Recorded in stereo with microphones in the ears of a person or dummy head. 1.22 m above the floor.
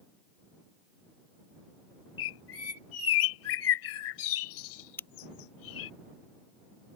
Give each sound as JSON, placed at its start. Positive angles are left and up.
{"t": 2.2, "sound": "a bird", "side_deg": 75}
{"t": 5.0, "sound": "a crack", "side_deg": 20}